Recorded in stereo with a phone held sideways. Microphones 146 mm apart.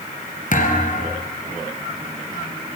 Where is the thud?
60° left (ahead or behind), 3 m.